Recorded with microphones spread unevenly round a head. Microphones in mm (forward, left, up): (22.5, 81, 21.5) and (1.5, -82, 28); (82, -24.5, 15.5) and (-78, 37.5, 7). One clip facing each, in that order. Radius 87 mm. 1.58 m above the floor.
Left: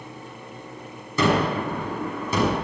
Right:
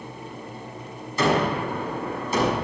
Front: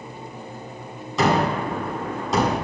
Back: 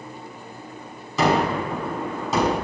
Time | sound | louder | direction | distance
1.2 | a gunshot | left 1 dB, even | 70° left | 6 m